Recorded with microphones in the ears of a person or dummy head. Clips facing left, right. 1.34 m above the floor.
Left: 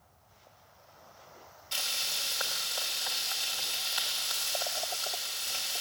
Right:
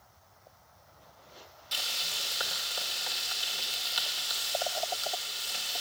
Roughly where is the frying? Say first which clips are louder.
Right 1 dB; right.